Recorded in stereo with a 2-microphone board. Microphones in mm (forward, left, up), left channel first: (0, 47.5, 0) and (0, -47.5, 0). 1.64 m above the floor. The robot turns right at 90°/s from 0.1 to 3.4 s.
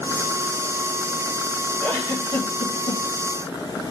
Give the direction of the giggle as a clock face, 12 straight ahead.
12 o'clock.